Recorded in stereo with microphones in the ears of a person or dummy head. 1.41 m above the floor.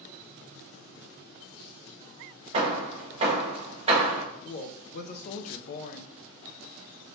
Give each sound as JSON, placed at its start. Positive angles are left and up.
{"t": 2.5, "sound": "hammering", "side_deg": -35, "distance_m": 1.2}
{"t": 4.4, "sound": "a woman speaking", "side_deg": 45, "distance_m": 0.5}